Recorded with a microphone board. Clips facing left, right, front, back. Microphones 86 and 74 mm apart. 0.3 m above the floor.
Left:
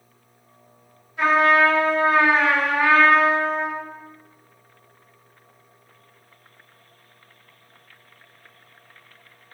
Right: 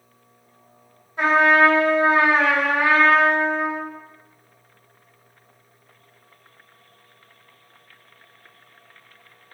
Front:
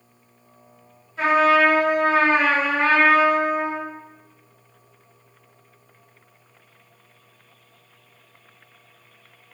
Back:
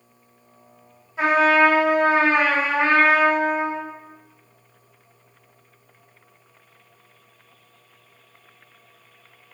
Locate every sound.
1.2 s a trumpet: 115° right, 1.3 m